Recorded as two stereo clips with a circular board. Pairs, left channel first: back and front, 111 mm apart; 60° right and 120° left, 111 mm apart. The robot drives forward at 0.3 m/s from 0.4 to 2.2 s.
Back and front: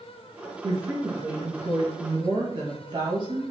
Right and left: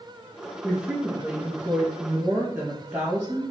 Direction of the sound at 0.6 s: 40° left.